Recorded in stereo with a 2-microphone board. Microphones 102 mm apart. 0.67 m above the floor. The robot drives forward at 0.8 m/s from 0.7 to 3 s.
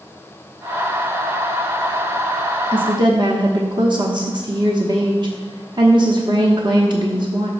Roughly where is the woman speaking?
Right.